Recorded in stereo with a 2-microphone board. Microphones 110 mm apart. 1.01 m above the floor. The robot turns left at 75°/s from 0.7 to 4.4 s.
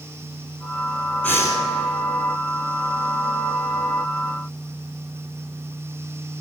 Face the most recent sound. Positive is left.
turn(degrees=-70)